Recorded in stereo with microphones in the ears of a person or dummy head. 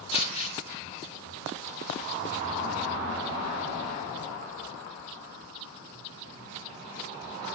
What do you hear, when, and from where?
0.1 s crumpling: 45° left (ahead or behind), 1.6 m